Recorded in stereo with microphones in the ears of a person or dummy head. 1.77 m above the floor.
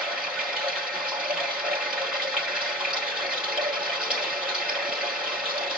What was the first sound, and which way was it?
Running water, 5° right (ahead or behind).